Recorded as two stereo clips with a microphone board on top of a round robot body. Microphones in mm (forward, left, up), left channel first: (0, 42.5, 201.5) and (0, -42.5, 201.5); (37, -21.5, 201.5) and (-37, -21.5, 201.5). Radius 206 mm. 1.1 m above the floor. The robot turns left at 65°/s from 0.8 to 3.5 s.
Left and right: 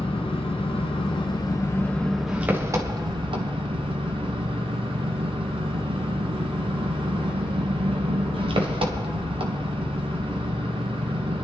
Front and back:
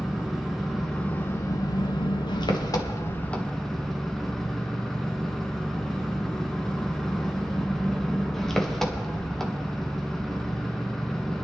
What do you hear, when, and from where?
0.0 s an engine running: 90° left, 1.4 m; by 11.4 s 85° right, 1.4 m